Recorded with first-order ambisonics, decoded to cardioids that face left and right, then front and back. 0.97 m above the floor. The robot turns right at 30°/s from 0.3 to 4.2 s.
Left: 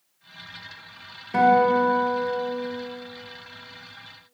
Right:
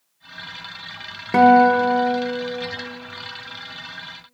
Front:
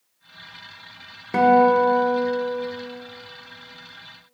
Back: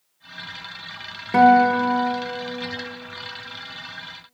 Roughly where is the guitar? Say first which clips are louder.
Right 5 dB, back 1 dB; right.